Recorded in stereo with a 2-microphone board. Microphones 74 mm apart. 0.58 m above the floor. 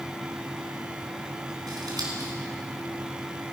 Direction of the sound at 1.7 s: 60° right (ahead or behind).